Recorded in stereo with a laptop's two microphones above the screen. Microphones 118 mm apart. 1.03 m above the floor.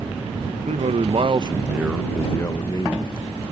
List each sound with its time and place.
0.7 s a man speaking: 70° right (ahead or behind); by 3.5 s 45° left (ahead or behind)